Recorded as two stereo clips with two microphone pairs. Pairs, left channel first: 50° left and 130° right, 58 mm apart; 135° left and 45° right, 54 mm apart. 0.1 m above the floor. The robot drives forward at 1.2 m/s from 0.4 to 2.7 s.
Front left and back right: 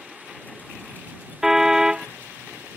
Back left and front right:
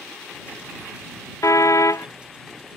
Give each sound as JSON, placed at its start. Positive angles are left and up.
{"t": 1.4, "sound": "a car horn", "azimuth_deg": 145}